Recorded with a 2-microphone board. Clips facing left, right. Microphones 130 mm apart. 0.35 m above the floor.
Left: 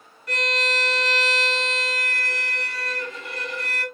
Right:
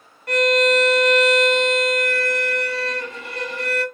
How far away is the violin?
About 0.9 m.